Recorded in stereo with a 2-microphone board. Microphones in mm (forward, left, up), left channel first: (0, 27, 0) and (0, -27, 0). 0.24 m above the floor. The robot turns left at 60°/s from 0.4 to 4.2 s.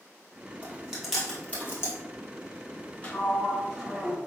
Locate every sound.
0.6 s chewing: 30° right (ahead or behind), 1.6 m; by 2.0 s 50° left (ahead or behind), 1.6 m
3.0 s a sliding door: 45° left, 1.0 m; by 4.2 s 25° right, 1.0 m